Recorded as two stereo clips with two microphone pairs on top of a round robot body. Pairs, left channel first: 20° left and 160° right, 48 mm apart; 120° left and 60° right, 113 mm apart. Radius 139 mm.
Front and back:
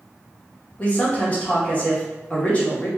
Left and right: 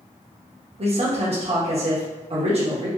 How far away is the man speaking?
About 1.5 m.